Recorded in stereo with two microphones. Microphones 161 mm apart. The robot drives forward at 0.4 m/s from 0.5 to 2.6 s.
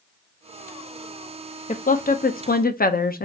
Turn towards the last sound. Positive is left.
turn(degrees=65)  # may be behind; listen again after turning